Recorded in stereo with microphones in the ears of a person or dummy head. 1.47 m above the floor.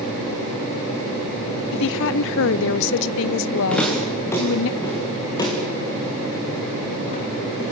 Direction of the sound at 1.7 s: 70° left (ahead or behind).